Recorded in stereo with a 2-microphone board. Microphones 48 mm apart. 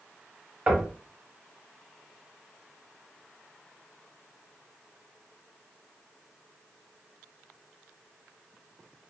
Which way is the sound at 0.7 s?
25° right (ahead or behind).